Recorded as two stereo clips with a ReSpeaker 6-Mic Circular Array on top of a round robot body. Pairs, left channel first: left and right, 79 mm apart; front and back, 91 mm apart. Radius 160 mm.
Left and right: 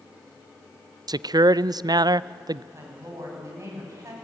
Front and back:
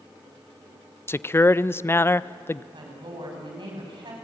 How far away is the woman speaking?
About 7 m.